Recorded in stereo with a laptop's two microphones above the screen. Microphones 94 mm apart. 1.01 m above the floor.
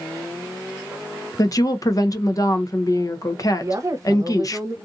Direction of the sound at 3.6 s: 40° right (ahead or behind).